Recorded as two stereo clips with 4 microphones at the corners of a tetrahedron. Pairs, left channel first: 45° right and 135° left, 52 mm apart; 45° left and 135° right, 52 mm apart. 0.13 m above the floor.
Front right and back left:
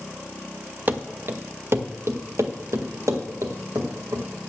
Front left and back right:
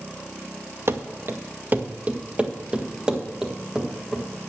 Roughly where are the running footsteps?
Behind.